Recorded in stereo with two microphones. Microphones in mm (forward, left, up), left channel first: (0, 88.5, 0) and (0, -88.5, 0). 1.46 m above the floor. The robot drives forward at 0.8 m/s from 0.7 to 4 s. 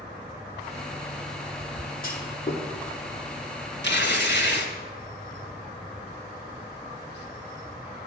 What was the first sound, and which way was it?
A clunk, 55° left (ahead or behind).